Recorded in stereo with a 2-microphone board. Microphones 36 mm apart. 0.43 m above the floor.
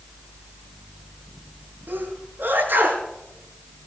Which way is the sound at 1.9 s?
70° right (ahead or behind).